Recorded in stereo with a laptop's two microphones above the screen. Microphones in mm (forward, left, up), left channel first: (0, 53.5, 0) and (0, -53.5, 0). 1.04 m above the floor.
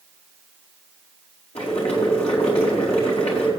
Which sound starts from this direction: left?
Boiling, at 1.6 s.